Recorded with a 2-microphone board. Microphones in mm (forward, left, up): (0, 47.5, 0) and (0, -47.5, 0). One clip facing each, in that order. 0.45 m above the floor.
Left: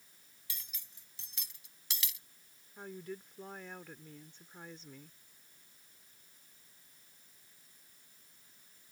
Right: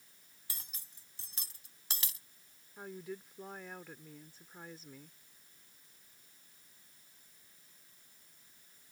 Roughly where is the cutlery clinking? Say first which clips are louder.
Even; right.